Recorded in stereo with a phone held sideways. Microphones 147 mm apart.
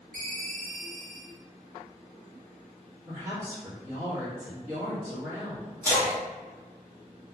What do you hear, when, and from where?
0.1 s a ringtone: 65° right (ahead or behind), 0.7 m
3.1 s a woman speaking: 20° right (ahead or behind), 1.3 m
5.8 s a splash: 20° left (ahead or behind), 1.0 m